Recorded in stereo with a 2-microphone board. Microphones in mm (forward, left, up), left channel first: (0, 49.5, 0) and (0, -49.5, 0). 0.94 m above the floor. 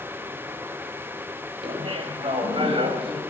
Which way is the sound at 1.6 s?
70° right (ahead or behind).